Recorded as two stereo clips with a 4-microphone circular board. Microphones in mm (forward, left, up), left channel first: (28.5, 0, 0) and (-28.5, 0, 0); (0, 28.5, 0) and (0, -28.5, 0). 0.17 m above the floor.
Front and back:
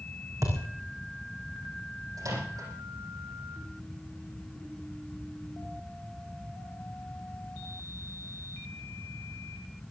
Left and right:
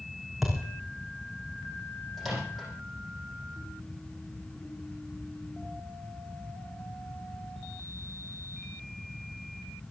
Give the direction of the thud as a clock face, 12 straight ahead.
6 o'clock.